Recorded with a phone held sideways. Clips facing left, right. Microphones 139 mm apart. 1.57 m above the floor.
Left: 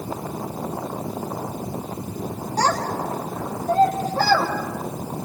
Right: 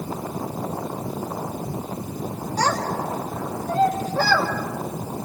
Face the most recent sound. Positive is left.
turn(degrees=40)  # may be behind; listen again after turning